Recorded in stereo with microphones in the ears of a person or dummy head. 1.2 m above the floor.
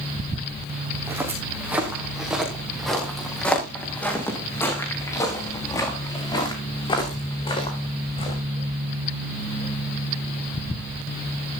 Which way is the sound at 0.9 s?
10° right (ahead or behind).